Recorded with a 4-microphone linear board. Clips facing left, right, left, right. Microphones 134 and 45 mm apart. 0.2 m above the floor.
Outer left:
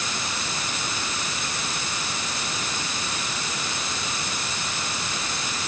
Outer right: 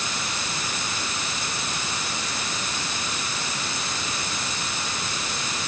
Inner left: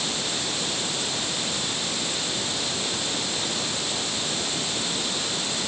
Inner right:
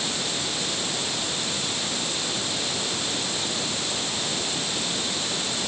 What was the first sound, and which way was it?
Only background noise.